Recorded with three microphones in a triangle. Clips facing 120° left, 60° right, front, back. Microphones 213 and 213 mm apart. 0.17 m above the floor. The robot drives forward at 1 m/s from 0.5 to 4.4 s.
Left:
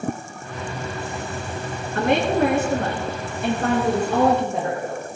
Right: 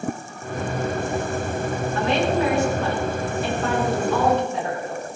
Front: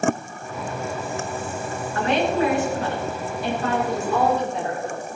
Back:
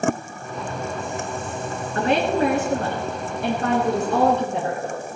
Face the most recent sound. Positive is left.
turn(degrees=160)